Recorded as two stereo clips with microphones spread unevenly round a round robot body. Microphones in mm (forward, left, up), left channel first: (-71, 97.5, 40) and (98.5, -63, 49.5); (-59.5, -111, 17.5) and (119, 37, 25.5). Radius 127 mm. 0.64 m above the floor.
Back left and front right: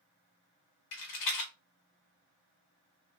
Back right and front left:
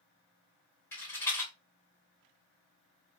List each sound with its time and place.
0.9 s a rattle: 140° left, 1.2 m